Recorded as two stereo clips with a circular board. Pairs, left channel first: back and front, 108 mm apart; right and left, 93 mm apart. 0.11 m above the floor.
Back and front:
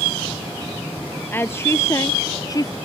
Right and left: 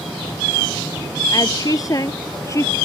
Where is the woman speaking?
115° right; by 2.8 s 140° right.